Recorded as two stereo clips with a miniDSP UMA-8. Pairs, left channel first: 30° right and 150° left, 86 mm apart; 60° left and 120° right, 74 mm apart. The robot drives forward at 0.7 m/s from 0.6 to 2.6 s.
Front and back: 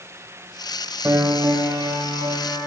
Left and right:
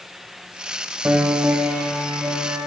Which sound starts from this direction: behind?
A piano, at 1.1 s.